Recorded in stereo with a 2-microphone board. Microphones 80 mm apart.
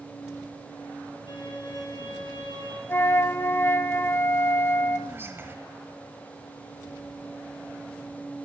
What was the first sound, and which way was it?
A violin, 65° left (ahead or behind).